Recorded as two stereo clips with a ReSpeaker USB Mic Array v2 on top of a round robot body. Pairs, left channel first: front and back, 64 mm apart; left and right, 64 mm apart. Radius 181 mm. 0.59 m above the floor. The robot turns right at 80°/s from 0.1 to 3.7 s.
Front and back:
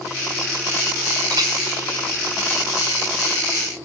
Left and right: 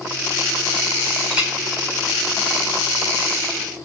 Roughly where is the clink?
Behind.